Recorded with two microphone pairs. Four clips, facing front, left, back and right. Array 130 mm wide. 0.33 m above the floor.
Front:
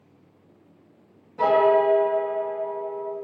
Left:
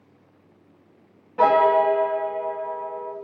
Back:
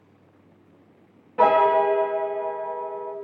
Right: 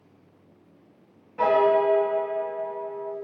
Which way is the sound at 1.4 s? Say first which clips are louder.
Left 3 dB, back 1 dB; 150° left.